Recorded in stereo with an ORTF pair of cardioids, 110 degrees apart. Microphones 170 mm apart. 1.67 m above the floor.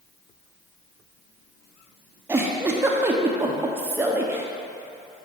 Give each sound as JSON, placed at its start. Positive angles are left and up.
{"t": 2.3, "sound": "a giggle", "azimuth_deg": -15, "distance_m": 0.8}